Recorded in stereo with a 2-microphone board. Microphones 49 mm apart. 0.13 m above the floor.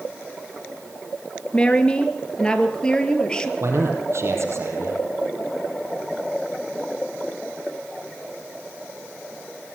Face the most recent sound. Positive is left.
turn(degrees=-65)  # may be behind; listen again after turning